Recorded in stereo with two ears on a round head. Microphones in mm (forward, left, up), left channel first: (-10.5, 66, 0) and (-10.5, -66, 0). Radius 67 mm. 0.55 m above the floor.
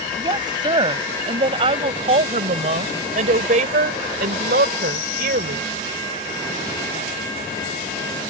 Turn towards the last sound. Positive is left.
turn(degrees=-65)  # may be behind; listen again after turning